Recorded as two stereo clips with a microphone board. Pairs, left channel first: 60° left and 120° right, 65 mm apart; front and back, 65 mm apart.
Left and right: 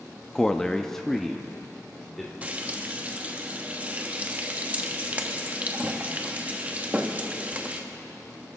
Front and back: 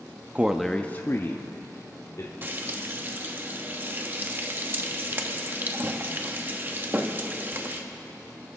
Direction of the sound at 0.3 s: 130° left.